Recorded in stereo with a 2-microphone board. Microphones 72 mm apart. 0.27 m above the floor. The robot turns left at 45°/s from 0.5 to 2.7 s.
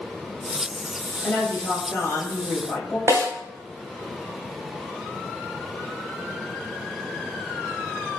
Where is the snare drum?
35° right (ahead or behind), 1.1 m.